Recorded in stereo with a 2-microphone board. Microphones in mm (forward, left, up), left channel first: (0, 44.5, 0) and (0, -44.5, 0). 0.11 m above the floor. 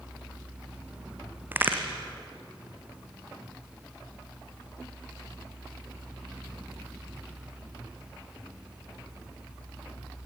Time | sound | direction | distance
1.5 | a crack | 20° right (ahead or behind) | 3 m